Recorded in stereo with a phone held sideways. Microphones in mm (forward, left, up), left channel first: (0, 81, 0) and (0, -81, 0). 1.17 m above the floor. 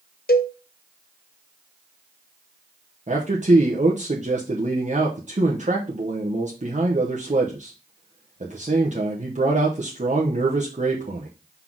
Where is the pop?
No pop in this recording.